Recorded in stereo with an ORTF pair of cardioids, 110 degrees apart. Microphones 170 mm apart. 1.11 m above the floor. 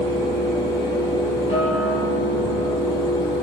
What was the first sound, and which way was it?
A fan, 25° left.